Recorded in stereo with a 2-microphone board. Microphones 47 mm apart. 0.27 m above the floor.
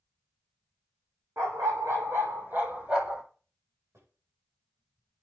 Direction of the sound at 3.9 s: 65° right (ahead or behind).